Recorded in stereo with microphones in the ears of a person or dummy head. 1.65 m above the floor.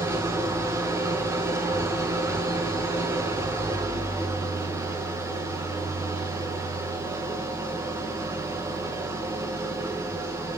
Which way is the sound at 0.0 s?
5° right (ahead or behind).